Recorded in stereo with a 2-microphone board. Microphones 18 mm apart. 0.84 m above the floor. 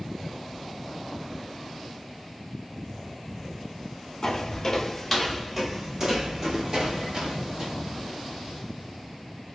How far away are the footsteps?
About 1.2 m.